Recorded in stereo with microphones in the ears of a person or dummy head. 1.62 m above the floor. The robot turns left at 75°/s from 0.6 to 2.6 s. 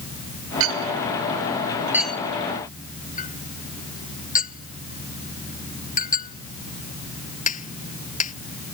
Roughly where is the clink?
Right.